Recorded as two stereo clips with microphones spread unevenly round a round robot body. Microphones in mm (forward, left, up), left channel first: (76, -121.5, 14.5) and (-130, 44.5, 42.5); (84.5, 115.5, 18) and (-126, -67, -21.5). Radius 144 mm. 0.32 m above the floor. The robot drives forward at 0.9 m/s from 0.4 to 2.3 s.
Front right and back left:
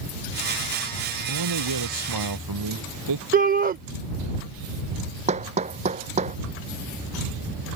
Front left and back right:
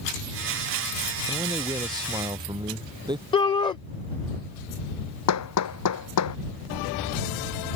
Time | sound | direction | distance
1.3 | a man speaking | 145° left | ?
3.3 | a shout | 110° left | ?
5.3 | hammering | 70° left | ?